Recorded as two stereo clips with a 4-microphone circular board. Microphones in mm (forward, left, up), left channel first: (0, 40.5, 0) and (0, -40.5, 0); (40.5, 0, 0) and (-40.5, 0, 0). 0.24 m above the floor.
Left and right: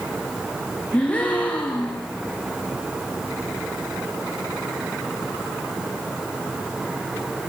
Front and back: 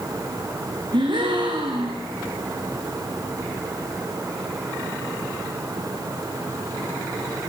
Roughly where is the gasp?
Behind.